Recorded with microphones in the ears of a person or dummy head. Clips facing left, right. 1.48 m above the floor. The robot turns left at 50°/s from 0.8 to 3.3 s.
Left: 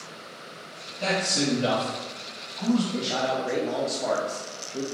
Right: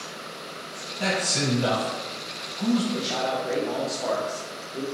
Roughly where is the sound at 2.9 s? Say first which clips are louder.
Even; centre.